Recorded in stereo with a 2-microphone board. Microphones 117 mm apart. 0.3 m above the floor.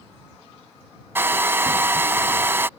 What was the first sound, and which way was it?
A hair dryer, 20° right (ahead or behind).